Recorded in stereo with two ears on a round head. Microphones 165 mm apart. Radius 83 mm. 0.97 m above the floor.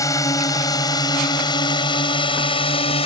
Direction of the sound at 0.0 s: 20° left (ahead or behind).